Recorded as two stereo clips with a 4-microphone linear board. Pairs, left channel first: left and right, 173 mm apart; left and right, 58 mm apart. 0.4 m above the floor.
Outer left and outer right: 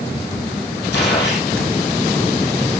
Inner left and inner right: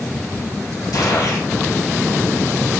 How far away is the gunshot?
About 3.5 m.